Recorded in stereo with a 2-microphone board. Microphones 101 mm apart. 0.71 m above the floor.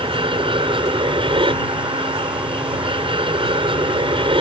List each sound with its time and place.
0.0 s an aircraft: 60° right (ahead or behind)